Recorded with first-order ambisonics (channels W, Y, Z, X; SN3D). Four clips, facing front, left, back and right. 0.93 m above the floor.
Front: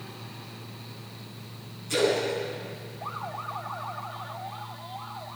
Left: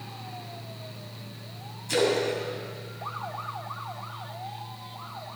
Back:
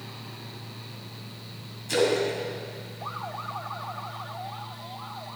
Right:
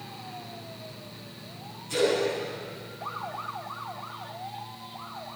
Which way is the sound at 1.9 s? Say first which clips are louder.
Left 1 dB, back 1 dB; 130° left.